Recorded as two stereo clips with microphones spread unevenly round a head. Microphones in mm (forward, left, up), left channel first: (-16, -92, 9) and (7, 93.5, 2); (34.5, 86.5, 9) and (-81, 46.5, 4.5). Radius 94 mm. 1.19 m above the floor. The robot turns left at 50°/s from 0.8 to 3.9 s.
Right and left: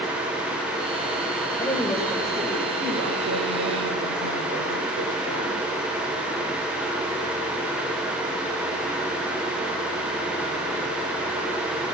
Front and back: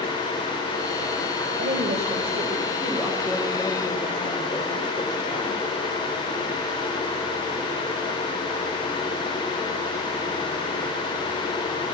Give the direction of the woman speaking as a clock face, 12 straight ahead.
6 o'clock.